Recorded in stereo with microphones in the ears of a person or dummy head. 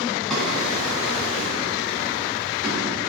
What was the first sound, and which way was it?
A drawer, centre (ahead or behind).